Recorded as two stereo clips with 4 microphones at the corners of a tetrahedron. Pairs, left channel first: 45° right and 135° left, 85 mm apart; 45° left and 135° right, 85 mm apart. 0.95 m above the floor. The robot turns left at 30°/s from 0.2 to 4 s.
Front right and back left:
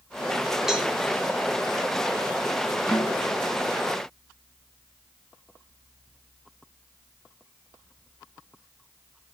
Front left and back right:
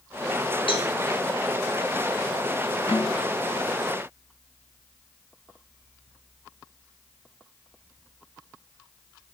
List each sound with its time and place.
0.7 s a cowbell: 50° left, 2.5 m; by 0.9 s 45° left, 2.5 m
2.9 s a snare drum: 40° left, 5.5 m; by 3.3 s 25° left, 5.5 m